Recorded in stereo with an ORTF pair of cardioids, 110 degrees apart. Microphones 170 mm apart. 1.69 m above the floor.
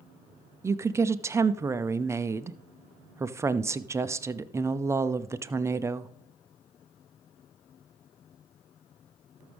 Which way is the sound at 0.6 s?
15° right.